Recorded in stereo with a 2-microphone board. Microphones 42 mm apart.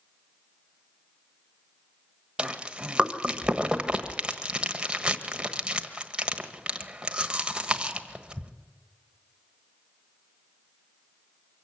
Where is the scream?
I don't hear a scream.